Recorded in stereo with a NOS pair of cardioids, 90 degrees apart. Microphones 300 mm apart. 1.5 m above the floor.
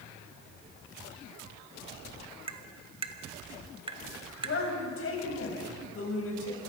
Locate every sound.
2.5 s tapping: 15° right, 1.6 m
4.4 s a woman speaking: 45° left, 7 m